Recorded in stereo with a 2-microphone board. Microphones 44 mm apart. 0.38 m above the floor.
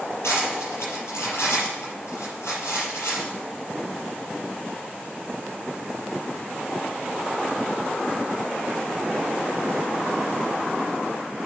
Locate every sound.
0.2 s cutlery clinking: 75° left (ahead or behind), 5.5 m